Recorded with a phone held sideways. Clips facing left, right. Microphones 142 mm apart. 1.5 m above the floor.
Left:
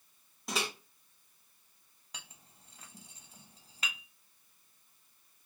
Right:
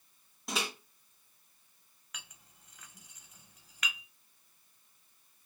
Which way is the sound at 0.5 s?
Centre (ahead or behind).